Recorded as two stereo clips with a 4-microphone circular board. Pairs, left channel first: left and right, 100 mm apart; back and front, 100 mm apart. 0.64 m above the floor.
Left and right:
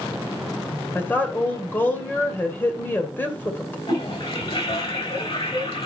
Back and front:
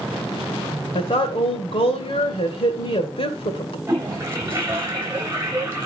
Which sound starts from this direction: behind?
A woman speaking, at 0.9 s.